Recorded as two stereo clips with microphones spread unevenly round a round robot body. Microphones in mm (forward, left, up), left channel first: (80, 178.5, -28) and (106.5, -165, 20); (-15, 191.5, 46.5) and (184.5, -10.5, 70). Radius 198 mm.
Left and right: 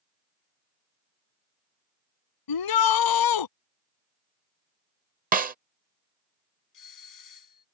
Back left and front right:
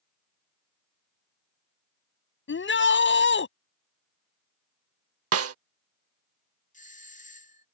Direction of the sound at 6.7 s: 75° left.